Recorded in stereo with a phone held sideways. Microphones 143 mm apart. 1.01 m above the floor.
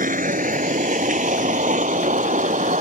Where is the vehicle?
70° right (ahead or behind); by 2.8 s 60° right (ahead or behind).